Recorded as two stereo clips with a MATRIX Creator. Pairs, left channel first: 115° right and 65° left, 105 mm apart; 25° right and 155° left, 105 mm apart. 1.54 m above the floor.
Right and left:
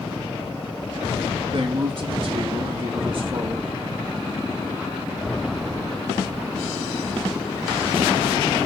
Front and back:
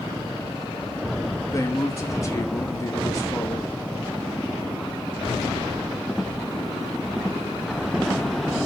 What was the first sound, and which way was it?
A man speaking, 35° left.